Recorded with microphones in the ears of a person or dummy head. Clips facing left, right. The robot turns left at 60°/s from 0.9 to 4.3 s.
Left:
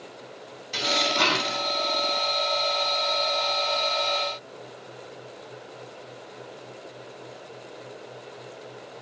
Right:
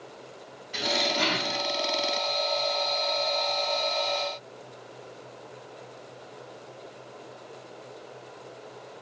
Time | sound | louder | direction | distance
0.7 | dishes clattering | left 1 dB | 125° left | 3.5 m